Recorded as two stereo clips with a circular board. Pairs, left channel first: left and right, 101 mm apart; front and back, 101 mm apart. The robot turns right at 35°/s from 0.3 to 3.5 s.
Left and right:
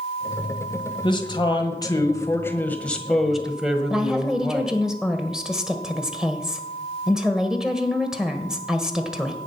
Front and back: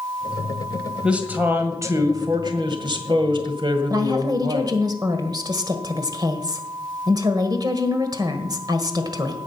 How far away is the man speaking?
About 1.8 m.